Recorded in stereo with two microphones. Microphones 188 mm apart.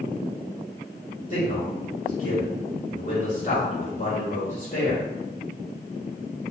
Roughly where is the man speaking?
Left.